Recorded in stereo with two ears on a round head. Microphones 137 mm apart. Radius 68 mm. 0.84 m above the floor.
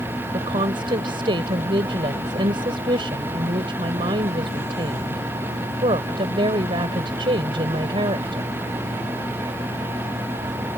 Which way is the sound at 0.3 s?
30° right (ahead or behind).